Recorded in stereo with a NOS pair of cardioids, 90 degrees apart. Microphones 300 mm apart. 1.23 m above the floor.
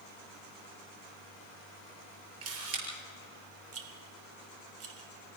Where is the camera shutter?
50° right, 8 m.